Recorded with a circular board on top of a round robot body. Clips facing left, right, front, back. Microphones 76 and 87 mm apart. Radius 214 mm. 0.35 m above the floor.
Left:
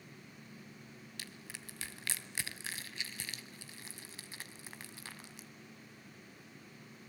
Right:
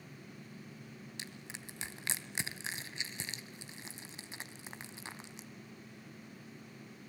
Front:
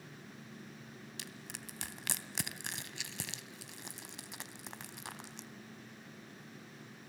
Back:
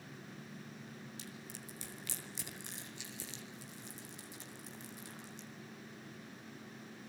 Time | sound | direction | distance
1.2 | crushing | 20° right | 2.5 m